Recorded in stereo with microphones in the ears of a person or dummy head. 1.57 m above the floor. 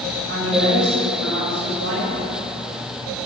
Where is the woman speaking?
75° right (ahead or behind), 5 m.